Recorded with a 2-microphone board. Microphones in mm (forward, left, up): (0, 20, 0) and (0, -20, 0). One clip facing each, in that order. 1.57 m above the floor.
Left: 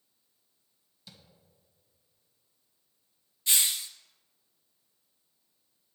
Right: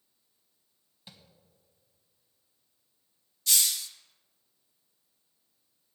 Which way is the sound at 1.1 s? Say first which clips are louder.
Right 1 dB; 30° right (ahead or behind).